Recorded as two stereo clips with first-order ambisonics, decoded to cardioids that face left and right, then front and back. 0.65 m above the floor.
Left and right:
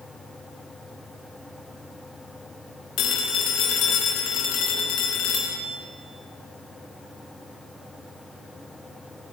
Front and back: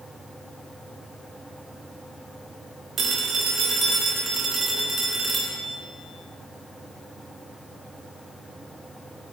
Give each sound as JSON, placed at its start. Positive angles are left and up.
{"t": 3.0, "sound": "a phone ringing", "azimuth_deg": 125, "distance_m": 1.3}